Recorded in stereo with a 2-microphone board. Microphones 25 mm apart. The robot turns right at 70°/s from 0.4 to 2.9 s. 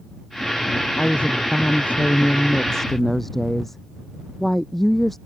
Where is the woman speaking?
35° left; by 5.2 s 170° left.